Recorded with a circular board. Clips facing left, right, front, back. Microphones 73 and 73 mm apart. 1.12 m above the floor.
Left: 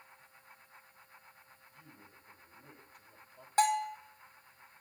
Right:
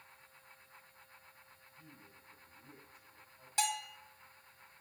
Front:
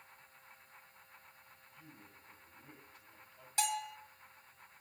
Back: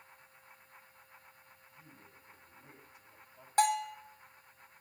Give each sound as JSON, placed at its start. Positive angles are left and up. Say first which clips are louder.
{"t": 1.7, "sound": "a man speaking", "louder": "left 1 dB, front 1 dB", "azimuth_deg": 105, "distance_m": 4.0}
{"t": 3.6, "sound": "a bell", "louder": "left 9 dB, back 8 dB", "azimuth_deg": 135, "distance_m": 1.1}